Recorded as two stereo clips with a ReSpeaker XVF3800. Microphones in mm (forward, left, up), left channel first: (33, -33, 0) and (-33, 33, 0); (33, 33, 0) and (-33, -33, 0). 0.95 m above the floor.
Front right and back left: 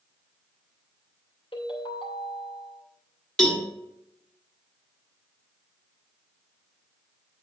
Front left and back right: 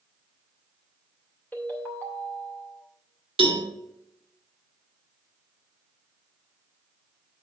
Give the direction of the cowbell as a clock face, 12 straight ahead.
4 o'clock.